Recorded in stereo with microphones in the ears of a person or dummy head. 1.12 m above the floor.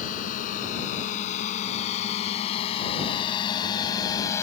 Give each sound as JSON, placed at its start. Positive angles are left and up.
{"t": 0.0, "sound": "a drone", "side_deg": 50}